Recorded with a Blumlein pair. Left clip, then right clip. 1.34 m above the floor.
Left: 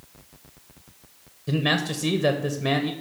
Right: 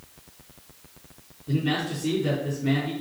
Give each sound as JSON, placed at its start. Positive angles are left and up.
{"t": 1.5, "sound": "a man speaking", "azimuth_deg": 50, "distance_m": 1.3}